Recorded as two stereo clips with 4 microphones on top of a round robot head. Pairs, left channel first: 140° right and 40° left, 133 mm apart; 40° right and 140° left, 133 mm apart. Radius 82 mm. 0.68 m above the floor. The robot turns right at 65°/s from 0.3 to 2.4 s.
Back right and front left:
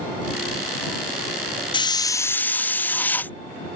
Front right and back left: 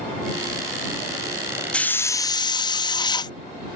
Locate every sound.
1.7 s a hiss: 115° right; by 3.4 s 70° right